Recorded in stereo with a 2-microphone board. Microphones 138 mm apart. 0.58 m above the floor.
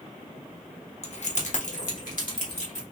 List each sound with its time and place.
1.0 s keys jangling: 50° left (ahead or behind), 0.9 m; by 2.8 s 65° left (ahead or behind), 2.5 m